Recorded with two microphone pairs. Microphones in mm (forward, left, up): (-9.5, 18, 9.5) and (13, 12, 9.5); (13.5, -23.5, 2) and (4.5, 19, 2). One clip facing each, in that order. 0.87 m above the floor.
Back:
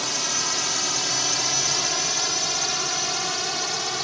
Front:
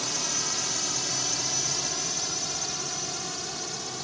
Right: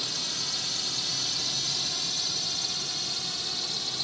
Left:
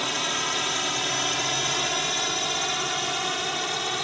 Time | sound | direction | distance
0.0 | a drone | 105° left | ?